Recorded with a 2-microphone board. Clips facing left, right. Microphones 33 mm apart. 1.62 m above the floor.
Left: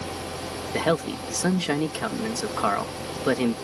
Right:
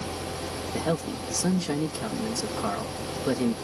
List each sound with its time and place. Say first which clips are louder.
0.7 s a man speaking: left 5 dB; 70° left (ahead or behind)